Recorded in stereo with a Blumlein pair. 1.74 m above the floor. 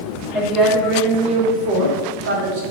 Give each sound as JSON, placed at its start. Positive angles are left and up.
{"t": 0.3, "sound": "a woman speaking", "azimuth_deg": -10, "distance_m": 1.5}